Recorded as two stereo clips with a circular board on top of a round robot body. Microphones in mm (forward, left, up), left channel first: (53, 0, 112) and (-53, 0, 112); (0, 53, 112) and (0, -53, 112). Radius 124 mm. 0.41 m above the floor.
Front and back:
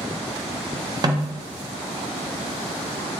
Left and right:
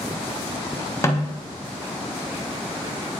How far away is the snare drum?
About 1.4 m.